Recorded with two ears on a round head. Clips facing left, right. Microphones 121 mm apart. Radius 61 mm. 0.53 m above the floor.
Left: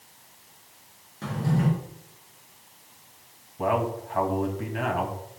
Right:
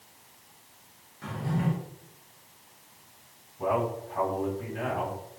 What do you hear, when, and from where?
1.2 s a drawer: 60° left (ahead or behind), 5.5 m
3.6 s a man speaking: 75° left (ahead or behind), 3.5 m